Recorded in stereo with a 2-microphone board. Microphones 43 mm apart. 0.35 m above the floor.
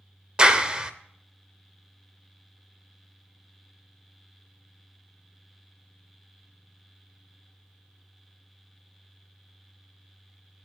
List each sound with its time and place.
0.4 s a clap: 20° right (ahead or behind), 0.7 m